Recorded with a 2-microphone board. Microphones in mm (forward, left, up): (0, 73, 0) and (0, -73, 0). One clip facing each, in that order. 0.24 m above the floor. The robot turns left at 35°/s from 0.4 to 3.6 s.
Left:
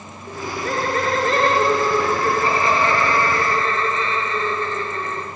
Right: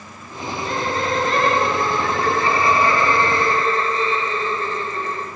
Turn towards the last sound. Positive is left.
turn(degrees=-40)